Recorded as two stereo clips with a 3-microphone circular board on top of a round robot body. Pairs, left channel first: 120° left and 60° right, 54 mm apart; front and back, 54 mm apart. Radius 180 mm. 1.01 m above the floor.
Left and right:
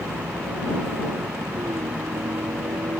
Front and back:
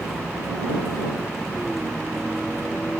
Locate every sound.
0.0 s a vehicle: 90° right